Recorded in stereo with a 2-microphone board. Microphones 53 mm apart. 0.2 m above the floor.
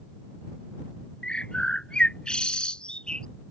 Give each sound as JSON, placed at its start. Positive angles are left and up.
{"t": 1.2, "sound": "a bird", "side_deg": 20}